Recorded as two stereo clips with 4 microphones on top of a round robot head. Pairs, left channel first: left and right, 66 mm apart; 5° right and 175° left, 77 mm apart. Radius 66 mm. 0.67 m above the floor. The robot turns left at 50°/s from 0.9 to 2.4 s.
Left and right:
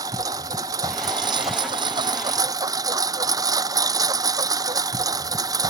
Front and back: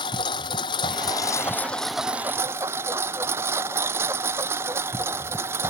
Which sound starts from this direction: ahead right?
A lawn mower, at 0.0 s.